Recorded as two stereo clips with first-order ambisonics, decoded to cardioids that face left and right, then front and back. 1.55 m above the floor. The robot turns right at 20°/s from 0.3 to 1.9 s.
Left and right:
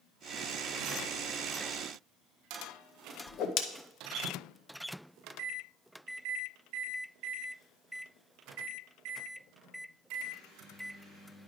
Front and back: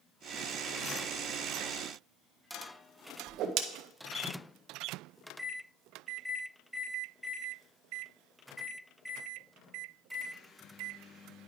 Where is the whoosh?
135° left, 0.6 m.